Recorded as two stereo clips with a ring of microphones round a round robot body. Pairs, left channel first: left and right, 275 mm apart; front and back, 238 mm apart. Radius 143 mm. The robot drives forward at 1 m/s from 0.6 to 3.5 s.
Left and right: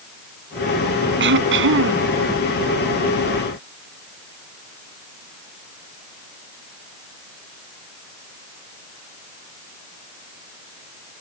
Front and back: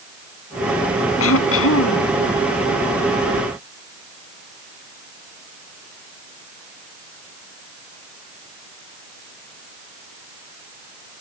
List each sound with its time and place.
1.2 s throat clearing: 40° right; by 2.1 s 45° right